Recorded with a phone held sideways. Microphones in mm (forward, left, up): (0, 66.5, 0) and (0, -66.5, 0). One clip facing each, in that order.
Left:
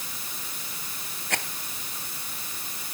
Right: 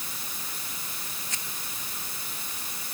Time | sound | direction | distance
1.3 | a rattle | 65° left (ahead or behind) | ?